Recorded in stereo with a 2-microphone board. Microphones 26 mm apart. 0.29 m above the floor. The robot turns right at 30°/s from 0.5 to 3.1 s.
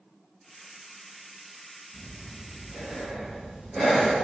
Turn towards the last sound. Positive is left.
turn(degrees=-5)